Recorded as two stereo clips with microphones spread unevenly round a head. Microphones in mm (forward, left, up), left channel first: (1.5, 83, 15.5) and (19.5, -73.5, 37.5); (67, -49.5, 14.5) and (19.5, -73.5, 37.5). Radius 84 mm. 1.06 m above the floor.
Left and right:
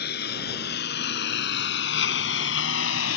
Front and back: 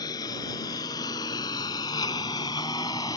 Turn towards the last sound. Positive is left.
turn(degrees=100)